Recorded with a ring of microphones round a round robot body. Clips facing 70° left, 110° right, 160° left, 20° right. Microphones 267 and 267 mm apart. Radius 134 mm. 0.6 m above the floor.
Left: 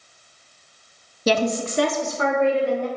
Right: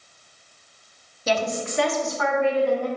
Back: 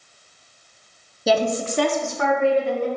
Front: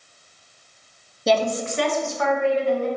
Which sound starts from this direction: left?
A woman speaking, at 1.3 s.